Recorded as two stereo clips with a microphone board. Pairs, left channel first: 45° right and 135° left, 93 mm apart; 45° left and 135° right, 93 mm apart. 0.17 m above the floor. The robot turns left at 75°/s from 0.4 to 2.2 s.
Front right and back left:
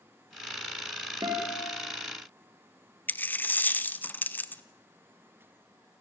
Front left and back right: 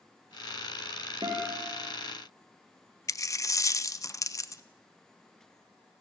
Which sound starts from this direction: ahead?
A dropped coin, at 3.1 s.